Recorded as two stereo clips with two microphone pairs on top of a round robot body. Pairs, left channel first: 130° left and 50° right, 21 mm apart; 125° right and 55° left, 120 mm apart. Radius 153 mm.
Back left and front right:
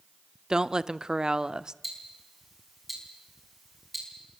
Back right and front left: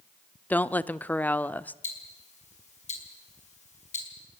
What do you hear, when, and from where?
0.5 s a woman speaking: 65° right, 0.9 m
1.8 s ticking: 135° right, 5 m